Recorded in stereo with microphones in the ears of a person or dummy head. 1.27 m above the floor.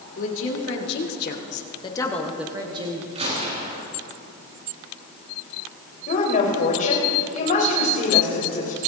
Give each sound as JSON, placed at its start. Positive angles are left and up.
{"t": 0.2, "sound": "a woman speaking", "side_deg": 75, "distance_m": 3.0}
{"t": 3.1, "sound": "a gunshot", "side_deg": -35, "distance_m": 3.0}
{"t": 6.1, "sound": "a woman speaking", "side_deg": 45, "distance_m": 5.0}